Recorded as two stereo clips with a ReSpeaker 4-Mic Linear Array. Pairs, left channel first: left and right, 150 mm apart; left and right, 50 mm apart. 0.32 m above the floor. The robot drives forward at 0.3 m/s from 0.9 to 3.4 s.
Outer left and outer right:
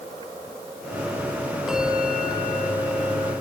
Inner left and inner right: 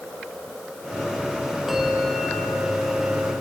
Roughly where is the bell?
Centre.